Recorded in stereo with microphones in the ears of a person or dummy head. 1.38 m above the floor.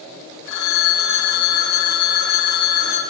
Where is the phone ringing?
65° left (ahead or behind), 4 m.